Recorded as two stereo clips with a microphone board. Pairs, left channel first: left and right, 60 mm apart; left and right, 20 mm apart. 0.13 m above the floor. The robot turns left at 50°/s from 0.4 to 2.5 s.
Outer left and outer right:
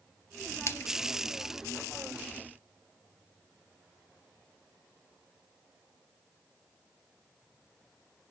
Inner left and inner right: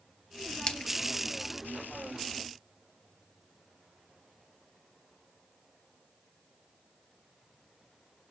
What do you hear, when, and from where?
0.7 s a splash: 45° left (ahead or behind), 0.6 m; by 0.9 s 55° left (ahead or behind), 0.6 m